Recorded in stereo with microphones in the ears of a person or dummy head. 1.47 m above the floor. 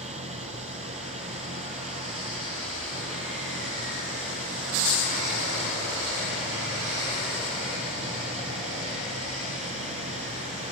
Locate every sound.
0.0 s an engine running: 30° right (ahead or behind)